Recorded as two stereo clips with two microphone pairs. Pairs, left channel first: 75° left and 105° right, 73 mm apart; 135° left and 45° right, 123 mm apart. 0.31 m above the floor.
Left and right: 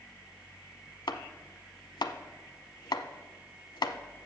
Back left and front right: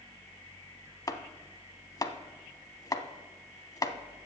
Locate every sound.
1.1 s chopping: 75° left, 0.7 m